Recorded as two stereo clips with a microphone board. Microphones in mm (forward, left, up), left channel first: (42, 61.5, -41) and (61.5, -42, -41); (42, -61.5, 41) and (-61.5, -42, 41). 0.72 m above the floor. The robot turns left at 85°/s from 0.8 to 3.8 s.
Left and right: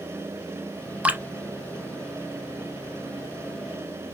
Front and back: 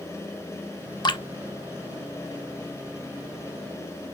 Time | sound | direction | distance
1.0 | dripping | 5° right | 0.7 m